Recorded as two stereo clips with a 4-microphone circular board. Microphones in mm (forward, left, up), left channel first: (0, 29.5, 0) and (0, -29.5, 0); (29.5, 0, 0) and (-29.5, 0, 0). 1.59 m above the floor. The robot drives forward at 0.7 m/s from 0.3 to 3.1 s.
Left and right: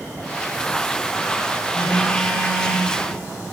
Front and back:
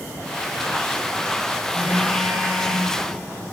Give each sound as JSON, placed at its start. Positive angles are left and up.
{"t": 1.7, "sound": "a phone buzzing", "azimuth_deg": 140, "distance_m": 4.0}